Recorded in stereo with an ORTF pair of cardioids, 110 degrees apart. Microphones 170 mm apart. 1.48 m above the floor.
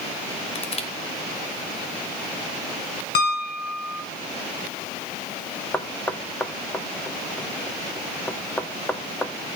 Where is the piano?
70° left, 1.9 m.